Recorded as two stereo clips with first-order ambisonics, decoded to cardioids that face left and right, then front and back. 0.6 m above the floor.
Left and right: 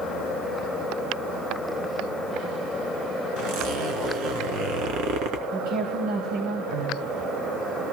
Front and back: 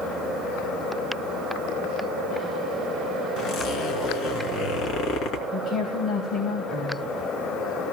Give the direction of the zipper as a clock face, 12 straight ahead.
2 o'clock.